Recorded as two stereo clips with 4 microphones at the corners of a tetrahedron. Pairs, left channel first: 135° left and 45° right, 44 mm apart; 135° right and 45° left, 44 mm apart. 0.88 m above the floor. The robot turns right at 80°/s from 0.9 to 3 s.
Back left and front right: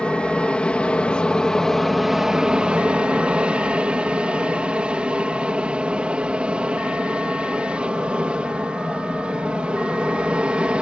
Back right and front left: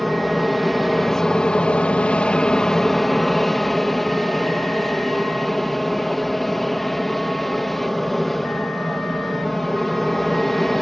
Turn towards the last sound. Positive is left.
turn(degrees=-55)